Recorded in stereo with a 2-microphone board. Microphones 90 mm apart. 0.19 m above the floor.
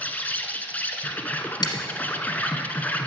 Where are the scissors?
50° left (ahead or behind), 1.3 m.